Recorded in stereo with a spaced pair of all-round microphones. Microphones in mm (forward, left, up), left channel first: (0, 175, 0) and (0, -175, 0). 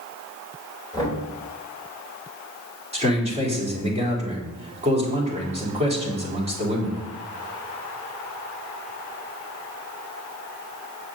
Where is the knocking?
10° left (ahead or behind), 4 m.